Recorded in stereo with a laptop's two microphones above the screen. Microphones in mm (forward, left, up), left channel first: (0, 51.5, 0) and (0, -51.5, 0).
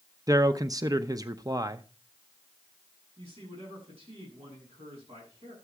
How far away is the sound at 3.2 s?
About 8.5 m.